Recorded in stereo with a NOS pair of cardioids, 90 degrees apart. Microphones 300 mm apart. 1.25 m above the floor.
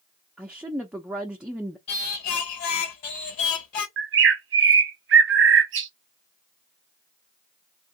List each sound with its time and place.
0.4 s a woman speaking: 5° right, 0.5 m
1.9 s singing: 70° left, 1.0 m
4.0 s a bird: 40° right, 0.8 m